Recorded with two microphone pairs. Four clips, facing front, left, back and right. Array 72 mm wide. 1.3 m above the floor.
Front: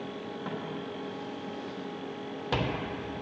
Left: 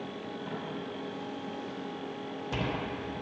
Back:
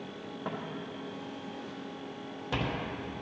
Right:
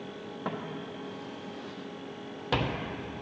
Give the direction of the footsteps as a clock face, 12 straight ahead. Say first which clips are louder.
Right 4 dB, even; 4 o'clock.